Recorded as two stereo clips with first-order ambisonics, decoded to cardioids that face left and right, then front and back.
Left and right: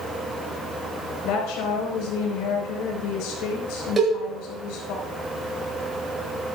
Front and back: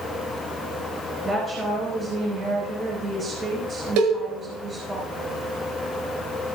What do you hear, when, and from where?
1.2 s a woman speaking: 110° left, 4.5 m
4.0 s a cowbell: 165° right, 7.5 m